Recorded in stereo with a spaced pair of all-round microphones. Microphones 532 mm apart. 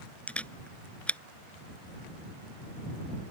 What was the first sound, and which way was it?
A camera shutter, centre (ahead or behind).